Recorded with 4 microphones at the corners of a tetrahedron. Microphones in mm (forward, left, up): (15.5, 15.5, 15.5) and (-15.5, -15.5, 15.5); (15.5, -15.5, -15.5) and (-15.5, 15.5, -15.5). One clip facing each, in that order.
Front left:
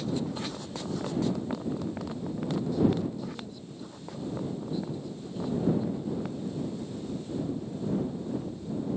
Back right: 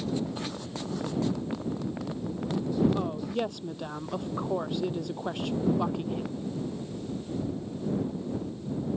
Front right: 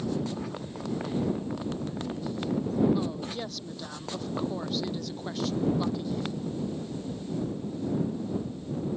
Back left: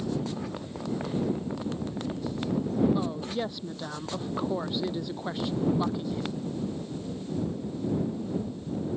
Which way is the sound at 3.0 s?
150° right.